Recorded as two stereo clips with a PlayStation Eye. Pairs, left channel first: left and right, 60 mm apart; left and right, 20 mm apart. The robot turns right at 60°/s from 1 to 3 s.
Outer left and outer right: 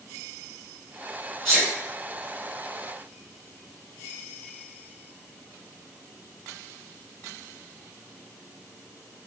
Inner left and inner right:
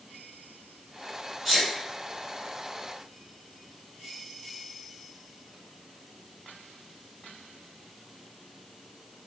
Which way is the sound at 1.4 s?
10° left (ahead or behind).